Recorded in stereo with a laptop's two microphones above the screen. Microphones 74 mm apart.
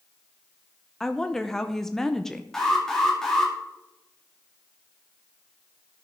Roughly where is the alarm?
Centre.